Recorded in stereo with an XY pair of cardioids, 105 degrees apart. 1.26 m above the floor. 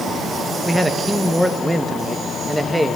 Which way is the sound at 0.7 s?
10° right.